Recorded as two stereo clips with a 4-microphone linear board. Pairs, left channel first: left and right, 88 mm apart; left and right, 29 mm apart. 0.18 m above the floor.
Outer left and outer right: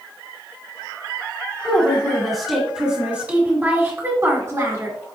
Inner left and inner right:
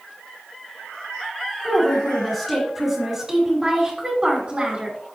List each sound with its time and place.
1.6 s a woman speaking: 15° left (ahead or behind), 1.8 m; by 5.0 s 45° right (ahead or behind), 2 m